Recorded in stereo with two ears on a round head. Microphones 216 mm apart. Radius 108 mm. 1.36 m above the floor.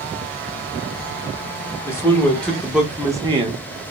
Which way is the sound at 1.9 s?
10° left (ahead or behind).